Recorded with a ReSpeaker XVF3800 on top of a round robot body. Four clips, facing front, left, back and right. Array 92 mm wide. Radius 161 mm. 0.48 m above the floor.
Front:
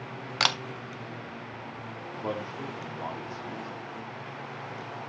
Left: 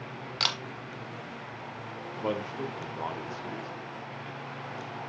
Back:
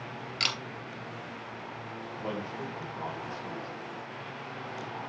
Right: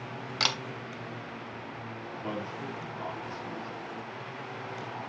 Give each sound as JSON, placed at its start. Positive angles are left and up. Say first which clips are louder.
{"t": 0.4, "sound": "a camera shutter", "louder": "right 1 dB, front 7 dB", "azimuth_deg": -5, "distance_m": 0.6}
{"t": 2.1, "sound": "a man speaking", "louder": "left 5 dB, front 2 dB", "azimuth_deg": 85, "distance_m": 2.0}